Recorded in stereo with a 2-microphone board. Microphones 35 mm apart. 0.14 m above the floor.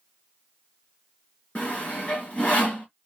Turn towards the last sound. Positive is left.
turn(degrees=35)  # may be behind; listen again after turning